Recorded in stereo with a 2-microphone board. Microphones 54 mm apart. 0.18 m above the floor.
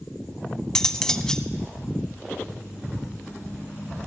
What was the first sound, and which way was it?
Cutlery clinking, 10° left (ahead or behind).